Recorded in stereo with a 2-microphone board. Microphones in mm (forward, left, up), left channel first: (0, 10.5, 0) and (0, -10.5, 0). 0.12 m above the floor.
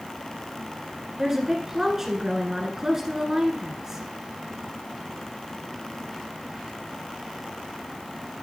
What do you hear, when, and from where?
1.2 s a woman speaking: 20° right (ahead or behind), 1.6 m